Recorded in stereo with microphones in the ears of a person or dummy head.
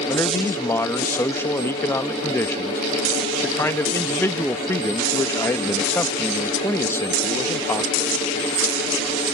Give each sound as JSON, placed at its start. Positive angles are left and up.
{"t": 0.1, "sound": "a man speaking", "side_deg": 15}